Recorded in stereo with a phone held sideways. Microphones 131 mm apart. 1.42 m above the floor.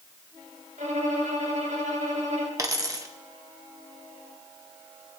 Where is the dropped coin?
25° right (ahead or behind), 0.8 m.